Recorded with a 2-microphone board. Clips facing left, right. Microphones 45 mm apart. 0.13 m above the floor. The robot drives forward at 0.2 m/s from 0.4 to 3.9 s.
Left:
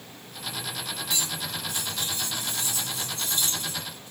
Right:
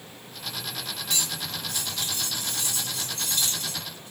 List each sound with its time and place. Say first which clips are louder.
1.1 s cutlery clinking: right 1 dB; 60° right (ahead or behind), 1.5 m; by 4.1 s 55° right (ahead or behind), 1.6 m